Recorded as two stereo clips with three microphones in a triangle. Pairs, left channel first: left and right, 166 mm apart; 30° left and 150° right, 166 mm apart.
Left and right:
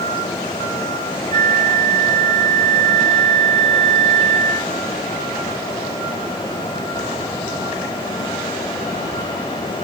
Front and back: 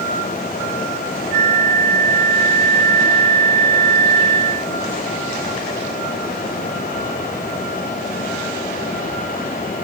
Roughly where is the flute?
Behind left.